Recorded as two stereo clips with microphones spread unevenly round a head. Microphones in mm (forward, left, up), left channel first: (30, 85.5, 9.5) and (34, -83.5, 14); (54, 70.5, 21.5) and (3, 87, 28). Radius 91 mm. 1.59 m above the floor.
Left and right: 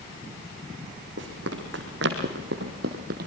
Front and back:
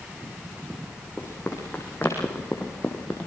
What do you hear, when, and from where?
1.2 s running footsteps: 100° right, 4 m; by 3.3 s 95° right, 2.5 m